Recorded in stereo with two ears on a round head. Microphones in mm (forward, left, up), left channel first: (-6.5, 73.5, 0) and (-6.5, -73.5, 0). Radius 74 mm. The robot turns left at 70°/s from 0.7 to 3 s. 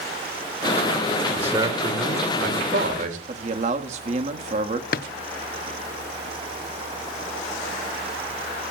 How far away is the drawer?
About 0.6 m.